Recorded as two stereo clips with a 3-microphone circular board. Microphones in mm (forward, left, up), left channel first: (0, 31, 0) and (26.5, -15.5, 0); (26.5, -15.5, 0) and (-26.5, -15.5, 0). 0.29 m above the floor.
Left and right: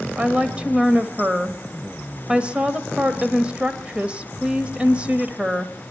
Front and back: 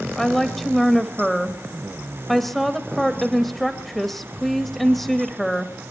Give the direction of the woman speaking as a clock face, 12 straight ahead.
3 o'clock.